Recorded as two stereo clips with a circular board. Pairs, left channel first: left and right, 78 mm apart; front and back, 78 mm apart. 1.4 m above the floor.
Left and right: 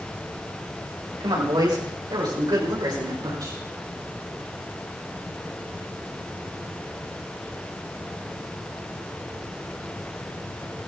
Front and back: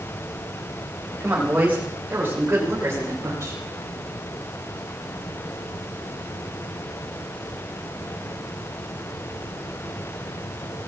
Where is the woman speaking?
110° right, 8 m; by 3.6 s 130° right, 5.5 m.